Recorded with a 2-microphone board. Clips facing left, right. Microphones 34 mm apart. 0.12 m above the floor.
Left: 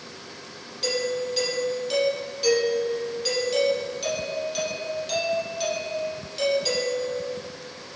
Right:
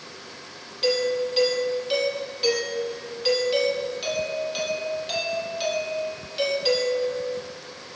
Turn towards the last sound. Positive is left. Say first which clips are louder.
# right 3 dB
turn(degrees=-20)  # may be behind; listen again after turning